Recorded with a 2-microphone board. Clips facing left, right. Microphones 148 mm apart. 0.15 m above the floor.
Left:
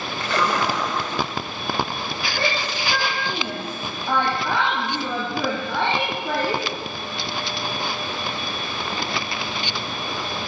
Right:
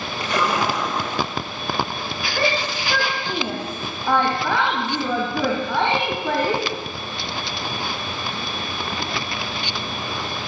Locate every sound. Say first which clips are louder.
0.2 s a splash: right 1 dB; 15° right (ahead or behind), 8.5 m
2.4 s a shout: right 4 dB; 75° right (ahead or behind), 8 m